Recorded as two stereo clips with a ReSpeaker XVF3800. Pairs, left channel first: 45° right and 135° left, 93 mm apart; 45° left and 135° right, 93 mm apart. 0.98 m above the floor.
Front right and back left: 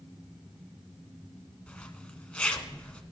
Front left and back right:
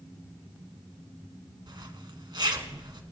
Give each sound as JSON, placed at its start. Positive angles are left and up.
{"t": 1.7, "sound": "a zipper", "azimuth_deg": -115, "distance_m": 1.0}